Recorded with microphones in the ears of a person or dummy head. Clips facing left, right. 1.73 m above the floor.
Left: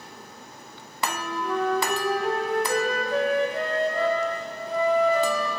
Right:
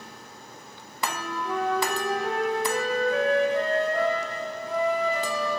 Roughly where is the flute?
Left.